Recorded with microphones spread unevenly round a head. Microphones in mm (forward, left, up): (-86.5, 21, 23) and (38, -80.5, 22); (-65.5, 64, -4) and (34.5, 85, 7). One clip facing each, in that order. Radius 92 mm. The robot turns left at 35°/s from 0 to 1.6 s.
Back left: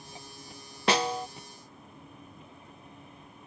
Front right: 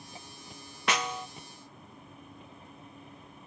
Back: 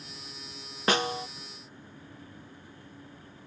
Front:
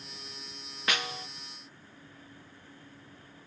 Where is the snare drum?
Straight behind; by 1.3 s 165° left.